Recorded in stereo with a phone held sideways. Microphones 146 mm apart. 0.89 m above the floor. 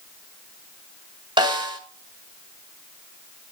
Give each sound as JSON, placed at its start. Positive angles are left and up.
{"t": 1.4, "sound": "a snare drum", "side_deg": -30, "distance_m": 1.9}